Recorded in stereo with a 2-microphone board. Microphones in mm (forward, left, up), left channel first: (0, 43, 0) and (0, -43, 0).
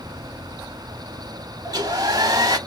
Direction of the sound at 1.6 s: 50° right (ahead or behind).